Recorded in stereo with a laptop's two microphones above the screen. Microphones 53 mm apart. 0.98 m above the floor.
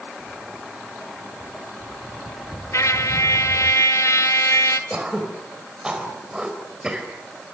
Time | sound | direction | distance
0.2 | footsteps | 5° right (ahead or behind) | 6 m
2.7 | a trumpet | 70° left (ahead or behind) | 1.8 m
4.9 | throat clearing | 15° right (ahead or behind) | 4 m